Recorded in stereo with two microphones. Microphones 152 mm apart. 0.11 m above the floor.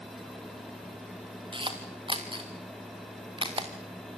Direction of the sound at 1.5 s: 30° right (ahead or behind).